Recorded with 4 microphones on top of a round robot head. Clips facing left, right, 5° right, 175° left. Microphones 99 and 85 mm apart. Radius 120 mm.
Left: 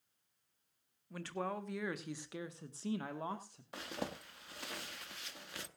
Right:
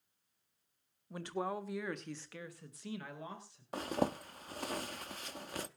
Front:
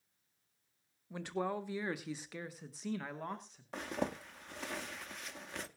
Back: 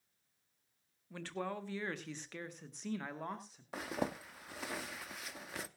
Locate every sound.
1.1 s a man speaking: 55° right, 1.4 m; by 3.6 s 90° left, 1.8 m
3.7 s a zipper: 100° right, 0.7 m